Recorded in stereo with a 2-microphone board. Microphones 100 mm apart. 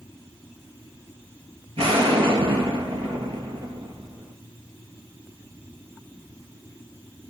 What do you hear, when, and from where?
1.8 s an explosion: 75° right (ahead or behind), 3.5 m